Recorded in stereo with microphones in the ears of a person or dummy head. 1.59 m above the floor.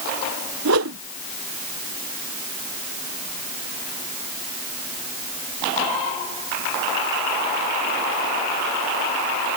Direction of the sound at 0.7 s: 75° right (ahead or behind).